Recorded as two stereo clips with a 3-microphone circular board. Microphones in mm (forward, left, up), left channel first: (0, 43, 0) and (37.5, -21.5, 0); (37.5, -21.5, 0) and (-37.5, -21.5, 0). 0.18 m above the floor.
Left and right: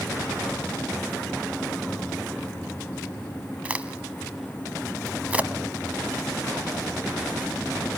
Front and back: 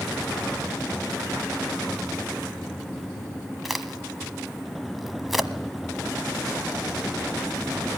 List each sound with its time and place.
3.6 s a crack: 90° right, 1.0 m